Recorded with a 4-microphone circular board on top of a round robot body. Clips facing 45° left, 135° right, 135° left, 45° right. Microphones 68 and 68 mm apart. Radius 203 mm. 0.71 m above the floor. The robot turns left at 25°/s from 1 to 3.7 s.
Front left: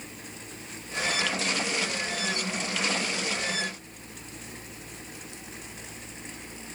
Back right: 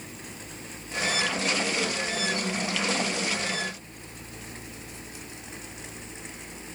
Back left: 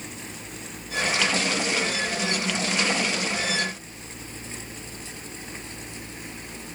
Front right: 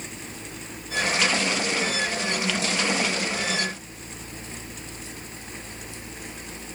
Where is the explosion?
I don't hear an explosion.